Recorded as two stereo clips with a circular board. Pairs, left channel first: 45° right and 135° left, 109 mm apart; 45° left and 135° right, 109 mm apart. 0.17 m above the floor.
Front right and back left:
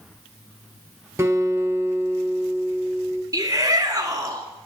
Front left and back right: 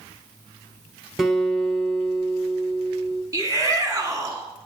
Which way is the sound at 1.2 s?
140° left.